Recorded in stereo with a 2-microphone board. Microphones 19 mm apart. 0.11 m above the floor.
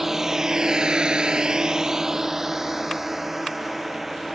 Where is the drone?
20° right (ahead or behind); by 4.4 s 15° right (ahead or behind).